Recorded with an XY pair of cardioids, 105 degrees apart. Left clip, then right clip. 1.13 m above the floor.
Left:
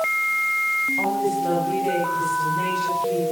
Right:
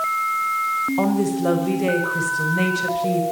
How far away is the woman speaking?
About 6 m.